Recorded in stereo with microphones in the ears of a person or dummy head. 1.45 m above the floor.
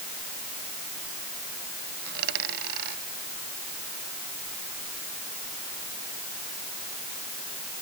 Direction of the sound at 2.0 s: 60° right (ahead or behind).